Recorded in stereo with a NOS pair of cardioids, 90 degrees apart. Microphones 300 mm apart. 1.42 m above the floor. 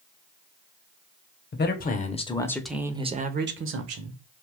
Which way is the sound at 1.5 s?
40° left.